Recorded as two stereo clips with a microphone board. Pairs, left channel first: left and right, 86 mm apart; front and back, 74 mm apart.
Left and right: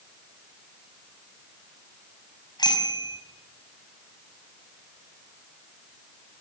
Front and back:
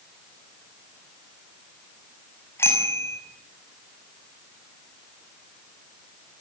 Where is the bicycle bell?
55° left, 5 m.